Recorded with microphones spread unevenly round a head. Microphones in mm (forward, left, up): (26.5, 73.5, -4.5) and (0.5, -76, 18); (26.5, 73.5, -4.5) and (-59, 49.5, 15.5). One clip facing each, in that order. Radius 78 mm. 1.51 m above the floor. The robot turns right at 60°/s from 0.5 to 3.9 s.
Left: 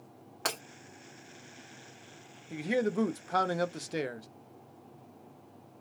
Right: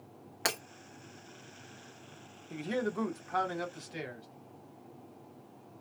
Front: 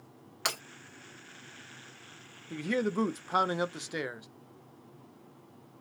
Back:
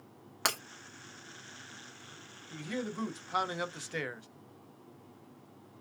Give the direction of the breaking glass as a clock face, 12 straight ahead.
6 o'clock.